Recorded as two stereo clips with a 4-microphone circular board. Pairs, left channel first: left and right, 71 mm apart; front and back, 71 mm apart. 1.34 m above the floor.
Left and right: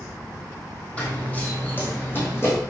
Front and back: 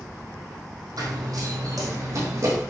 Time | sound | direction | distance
1.0 | running footsteps | 160° left | 3.5 m